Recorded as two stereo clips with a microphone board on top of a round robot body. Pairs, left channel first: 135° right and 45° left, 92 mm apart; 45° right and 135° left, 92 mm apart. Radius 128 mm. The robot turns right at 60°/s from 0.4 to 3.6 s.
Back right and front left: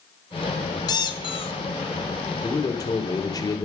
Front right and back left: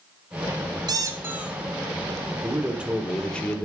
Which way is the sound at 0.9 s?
Straight behind.